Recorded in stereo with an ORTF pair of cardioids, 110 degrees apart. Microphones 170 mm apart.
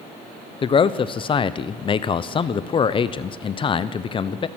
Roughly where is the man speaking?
Ahead left.